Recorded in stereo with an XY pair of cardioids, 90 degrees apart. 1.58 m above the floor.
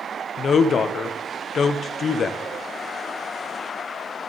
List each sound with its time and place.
0.4 s a woman speaking: 55° left, 0.9 m